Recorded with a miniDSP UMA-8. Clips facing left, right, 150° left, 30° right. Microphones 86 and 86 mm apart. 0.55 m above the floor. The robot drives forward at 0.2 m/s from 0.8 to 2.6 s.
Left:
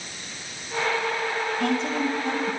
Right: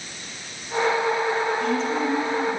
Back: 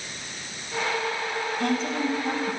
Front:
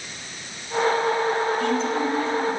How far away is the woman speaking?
About 3.5 m.